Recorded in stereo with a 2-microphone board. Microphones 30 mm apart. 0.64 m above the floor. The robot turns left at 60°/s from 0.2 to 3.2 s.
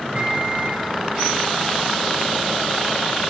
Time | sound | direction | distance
0.1 | a microwave | 45° right | 2.5 m